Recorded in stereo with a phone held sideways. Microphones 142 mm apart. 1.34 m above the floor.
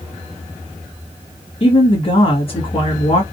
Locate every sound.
1.6 s a woman speaking: 40° left (ahead or behind), 2.5 m